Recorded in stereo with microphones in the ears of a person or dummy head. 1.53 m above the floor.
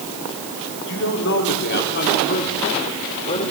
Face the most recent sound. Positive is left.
turn(degrees=40)  # may be behind; listen again after turning